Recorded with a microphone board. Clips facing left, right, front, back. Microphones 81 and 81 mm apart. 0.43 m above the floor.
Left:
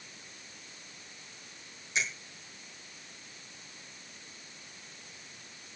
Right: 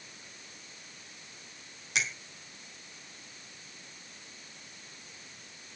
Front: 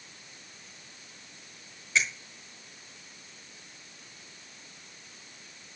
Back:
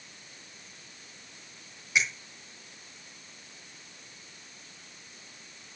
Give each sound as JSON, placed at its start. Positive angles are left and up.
{"t": 1.9, "sound": "a finger snap", "azimuth_deg": -105, "distance_m": 3.5}